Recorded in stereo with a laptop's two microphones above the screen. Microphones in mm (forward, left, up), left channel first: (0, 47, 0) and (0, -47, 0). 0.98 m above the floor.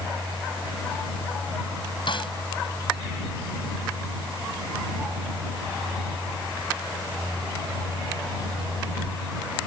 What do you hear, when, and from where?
2.1 s a snare drum: 60° left (ahead or behind)